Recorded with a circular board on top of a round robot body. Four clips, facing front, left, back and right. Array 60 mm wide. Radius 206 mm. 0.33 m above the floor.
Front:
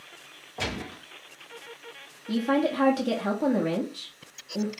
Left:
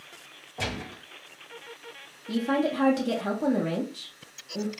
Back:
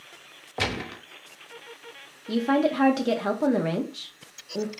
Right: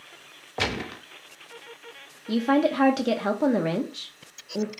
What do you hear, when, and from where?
0.6 s a gunshot: 130° right, 0.7 m
2.3 s a woman speaking: 120° right, 0.9 m